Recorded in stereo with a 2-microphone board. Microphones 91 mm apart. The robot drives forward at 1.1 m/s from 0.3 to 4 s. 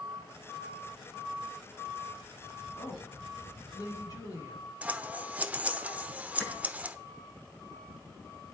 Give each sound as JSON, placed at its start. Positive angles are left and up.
{"t": 2.8, "sound": "a woman speaking", "side_deg": 55, "distance_m": 3.5}
{"t": 4.8, "sound": "scissors", "side_deg": -15, "distance_m": 0.6}
{"t": 6.4, "sound": "a clap", "side_deg": 15, "distance_m": 5.0}